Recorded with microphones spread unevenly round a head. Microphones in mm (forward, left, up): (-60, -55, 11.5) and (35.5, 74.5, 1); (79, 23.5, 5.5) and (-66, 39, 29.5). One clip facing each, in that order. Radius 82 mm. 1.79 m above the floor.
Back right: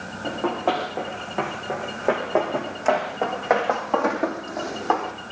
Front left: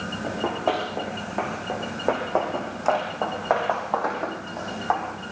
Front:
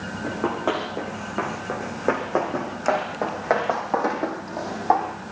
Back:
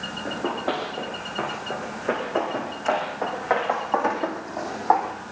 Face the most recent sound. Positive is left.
turn(degrees=-85)